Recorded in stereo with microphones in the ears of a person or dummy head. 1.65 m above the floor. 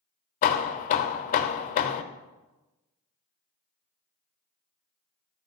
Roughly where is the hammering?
Left.